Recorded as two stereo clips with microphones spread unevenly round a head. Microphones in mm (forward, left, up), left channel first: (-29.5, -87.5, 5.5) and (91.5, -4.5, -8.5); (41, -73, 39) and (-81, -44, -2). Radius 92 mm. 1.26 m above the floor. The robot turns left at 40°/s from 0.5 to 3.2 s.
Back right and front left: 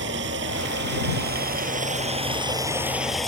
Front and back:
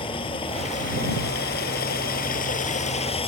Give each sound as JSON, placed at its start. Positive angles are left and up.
{"t": 0.0, "sound": "running water", "azimuth_deg": 50}